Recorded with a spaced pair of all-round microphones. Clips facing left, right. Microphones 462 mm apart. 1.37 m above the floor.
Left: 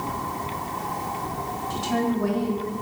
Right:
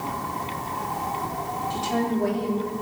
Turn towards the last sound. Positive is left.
turn(degrees=20)  # may be behind; listen again after turning